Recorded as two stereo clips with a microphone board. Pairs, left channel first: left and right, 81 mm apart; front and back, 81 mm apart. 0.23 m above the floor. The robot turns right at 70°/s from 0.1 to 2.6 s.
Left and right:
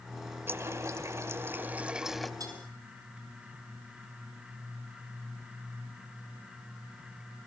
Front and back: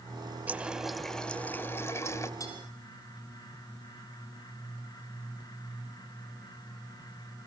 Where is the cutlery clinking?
45° right, 4 m; by 2.6 s 35° right, 4 m.